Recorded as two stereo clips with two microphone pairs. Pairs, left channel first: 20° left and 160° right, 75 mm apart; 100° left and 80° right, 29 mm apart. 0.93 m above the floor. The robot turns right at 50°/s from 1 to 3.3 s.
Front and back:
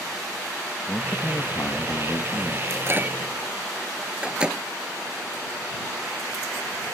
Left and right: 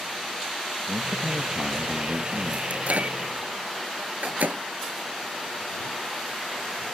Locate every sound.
0.9 s a man speaking: 50° right; by 2.6 s 30° left
2.7 s a microwave: 115° right; by 4.6 s 85° right